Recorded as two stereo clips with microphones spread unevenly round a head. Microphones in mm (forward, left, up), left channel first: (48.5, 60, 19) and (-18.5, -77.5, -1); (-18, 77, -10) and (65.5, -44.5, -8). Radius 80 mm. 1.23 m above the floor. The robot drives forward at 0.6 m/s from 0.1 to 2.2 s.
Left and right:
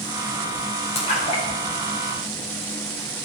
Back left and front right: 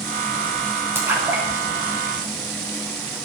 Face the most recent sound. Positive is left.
turn(degrees=20)